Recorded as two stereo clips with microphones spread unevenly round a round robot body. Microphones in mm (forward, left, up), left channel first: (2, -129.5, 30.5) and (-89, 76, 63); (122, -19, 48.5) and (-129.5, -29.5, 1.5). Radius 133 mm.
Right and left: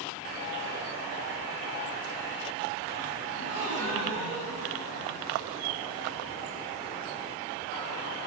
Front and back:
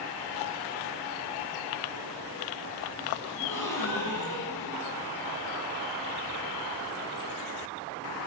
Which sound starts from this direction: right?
A gasp, at 3.3 s.